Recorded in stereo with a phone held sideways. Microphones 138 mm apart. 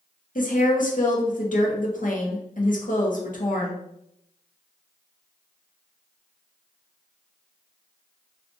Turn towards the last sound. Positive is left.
turn(degrees=75)  # may be behind; listen again after turning